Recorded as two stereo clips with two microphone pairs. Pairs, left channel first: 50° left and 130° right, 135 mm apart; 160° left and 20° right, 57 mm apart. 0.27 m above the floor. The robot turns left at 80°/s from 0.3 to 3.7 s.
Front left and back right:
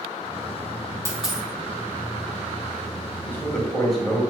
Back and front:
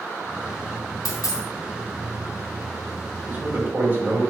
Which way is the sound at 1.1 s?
165° left.